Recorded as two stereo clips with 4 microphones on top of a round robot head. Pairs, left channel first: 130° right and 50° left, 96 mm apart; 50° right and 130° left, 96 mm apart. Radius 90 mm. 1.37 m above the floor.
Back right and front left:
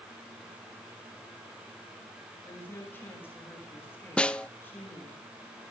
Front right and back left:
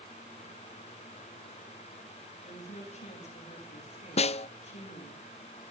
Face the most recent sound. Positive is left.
turn(degrees=-50)